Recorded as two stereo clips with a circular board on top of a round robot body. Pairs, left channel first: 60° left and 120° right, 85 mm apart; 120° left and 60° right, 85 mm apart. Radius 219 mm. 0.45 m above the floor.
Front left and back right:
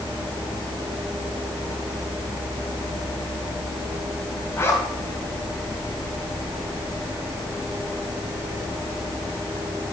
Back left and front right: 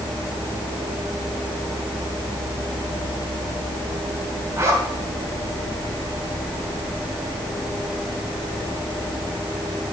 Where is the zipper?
Straight ahead, 3 m.